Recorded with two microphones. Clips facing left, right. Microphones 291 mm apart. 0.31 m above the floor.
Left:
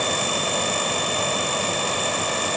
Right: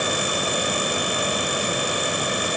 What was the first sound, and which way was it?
Only background noise.